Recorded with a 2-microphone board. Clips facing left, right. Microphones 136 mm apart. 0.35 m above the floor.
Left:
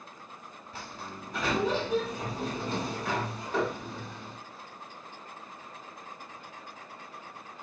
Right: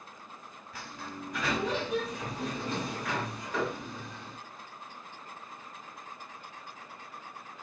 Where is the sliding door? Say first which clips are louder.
Even; 30° left (ahead or behind), 1.4 m.